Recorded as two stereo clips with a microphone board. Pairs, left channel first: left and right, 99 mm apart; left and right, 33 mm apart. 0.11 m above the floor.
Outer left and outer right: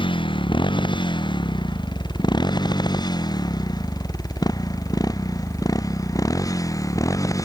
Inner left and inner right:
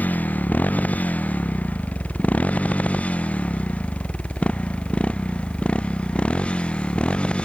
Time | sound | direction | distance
0.0 | a motorcycle | 55° left (ahead or behind) | ?